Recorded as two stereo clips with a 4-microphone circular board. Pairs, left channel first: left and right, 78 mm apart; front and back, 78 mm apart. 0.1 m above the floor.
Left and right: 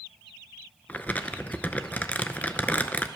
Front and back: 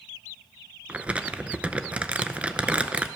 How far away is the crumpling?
About 0.6 m.